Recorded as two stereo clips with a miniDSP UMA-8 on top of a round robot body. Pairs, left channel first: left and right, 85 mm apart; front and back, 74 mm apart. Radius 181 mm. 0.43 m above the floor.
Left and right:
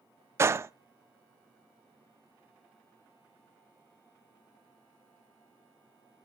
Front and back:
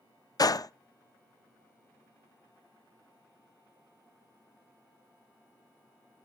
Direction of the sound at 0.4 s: 35° right.